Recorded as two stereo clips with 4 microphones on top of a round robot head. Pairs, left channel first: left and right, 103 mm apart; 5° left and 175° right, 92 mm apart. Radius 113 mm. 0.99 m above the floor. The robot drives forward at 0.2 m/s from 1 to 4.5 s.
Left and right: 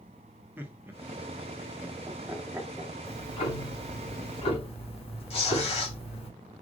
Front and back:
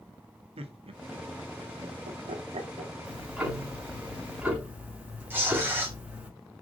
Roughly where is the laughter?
Behind.